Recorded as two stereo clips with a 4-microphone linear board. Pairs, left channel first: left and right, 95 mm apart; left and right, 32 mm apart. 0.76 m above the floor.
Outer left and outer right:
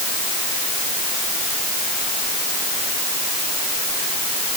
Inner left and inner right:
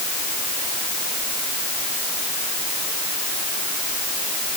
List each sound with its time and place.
Only background noise.